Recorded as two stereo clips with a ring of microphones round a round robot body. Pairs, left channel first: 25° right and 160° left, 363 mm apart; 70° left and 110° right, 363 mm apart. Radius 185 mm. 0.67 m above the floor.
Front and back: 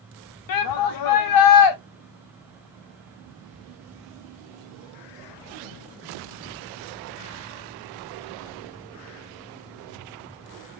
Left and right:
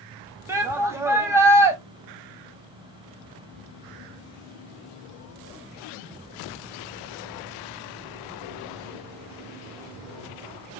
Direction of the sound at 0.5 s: 30° right.